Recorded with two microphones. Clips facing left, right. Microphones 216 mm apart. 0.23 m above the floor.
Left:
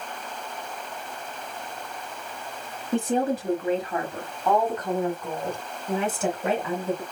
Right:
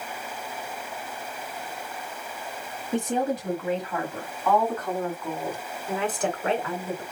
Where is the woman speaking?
35° left (ahead or behind), 1.5 m; by 7.0 s 5° left (ahead or behind), 3 m.